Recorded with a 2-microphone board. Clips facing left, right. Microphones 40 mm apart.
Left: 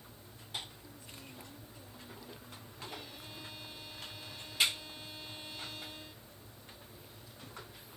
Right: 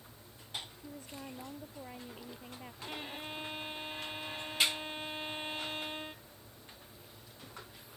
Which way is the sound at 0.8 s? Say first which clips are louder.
Right 6 dB; 60° right (ahead or behind).